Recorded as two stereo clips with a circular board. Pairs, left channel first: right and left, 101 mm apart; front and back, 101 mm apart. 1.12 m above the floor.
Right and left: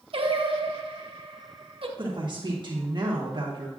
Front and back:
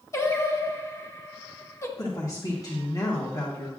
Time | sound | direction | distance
0.1 | singing | 60° left | 0.9 m
2.0 | a woman speaking | 50° left | 1.2 m